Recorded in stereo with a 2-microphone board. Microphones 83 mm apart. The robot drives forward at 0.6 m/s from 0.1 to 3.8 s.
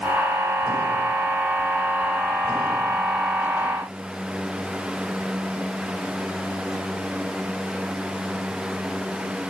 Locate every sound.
Only background noise.